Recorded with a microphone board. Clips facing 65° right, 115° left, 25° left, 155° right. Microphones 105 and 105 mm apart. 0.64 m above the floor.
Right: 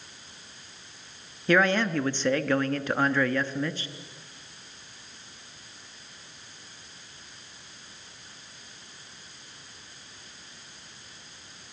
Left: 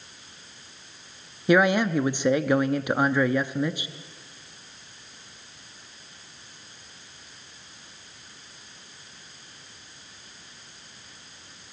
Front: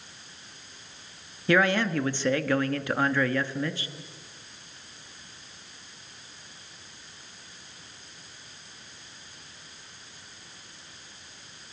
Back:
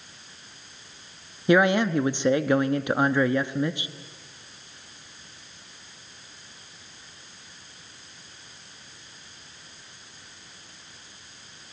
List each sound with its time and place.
1.5 s a man speaking: 165° left, 0.8 m